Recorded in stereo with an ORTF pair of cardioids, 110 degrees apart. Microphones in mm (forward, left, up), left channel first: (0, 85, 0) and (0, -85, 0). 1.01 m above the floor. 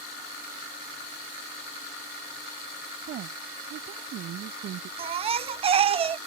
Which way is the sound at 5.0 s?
35° right.